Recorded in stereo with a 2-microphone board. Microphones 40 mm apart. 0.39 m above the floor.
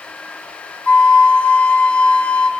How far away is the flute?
About 1.2 m.